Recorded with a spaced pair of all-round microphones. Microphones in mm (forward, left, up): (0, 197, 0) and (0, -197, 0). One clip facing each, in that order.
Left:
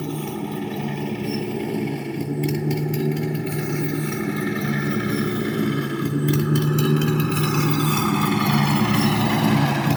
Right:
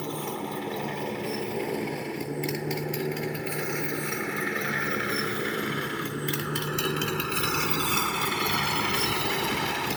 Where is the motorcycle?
45° left (ahead or behind); by 10.0 s 85° left.